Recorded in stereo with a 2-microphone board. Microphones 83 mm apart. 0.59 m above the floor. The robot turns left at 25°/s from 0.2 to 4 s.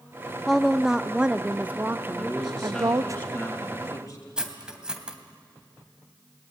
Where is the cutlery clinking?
10° right (ahead or behind), 2.5 m.